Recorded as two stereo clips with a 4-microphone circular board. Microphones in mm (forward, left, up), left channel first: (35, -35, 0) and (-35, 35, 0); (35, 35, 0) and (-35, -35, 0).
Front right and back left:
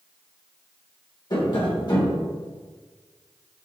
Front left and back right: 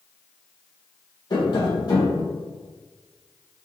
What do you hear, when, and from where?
1.3 s tapping: straight ahead, 1.5 m